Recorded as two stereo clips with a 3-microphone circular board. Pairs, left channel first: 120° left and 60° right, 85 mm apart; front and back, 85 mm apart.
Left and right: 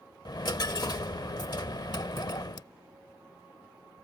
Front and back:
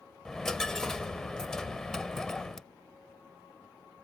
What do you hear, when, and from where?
0.2 s a dropped coin: 85° left